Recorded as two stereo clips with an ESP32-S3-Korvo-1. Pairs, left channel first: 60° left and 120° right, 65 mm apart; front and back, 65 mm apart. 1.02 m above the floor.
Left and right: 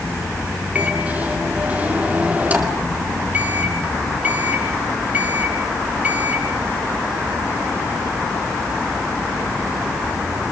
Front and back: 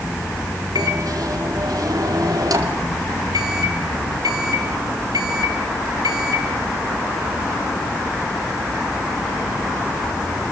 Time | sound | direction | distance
0.8 | a microwave | 175° left | 2.5 m